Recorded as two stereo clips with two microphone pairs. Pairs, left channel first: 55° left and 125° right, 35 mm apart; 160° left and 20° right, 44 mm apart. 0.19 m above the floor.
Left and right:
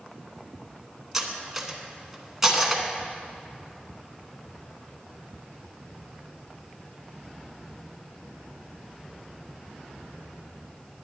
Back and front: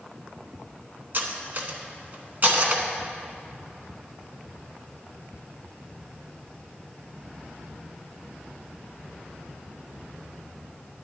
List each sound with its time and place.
1.1 s cutlery clinking: 50° right, 0.9 m